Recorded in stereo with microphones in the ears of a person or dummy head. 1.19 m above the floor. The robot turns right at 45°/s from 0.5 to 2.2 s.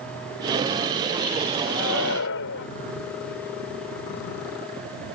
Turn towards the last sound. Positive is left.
turn(degrees=65)  # may be behind; listen again after turning